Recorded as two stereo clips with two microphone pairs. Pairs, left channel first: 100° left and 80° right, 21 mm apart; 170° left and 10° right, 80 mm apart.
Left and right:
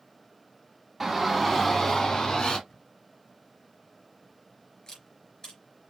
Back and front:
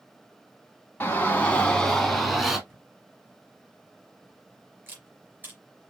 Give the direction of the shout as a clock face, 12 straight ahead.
5 o'clock.